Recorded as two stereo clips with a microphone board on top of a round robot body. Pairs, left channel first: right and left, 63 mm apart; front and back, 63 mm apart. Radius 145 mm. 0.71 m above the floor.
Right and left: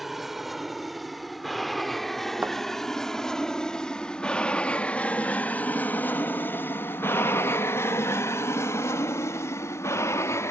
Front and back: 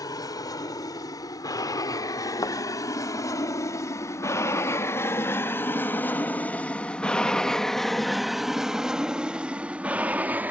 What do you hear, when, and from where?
0.0 s an aircraft: 5° left; by 10.5 s 125° right
2.4 s a thud: 25° left